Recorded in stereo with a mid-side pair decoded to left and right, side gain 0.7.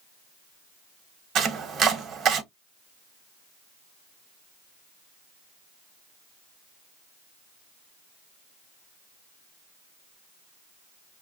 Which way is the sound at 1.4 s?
45° right.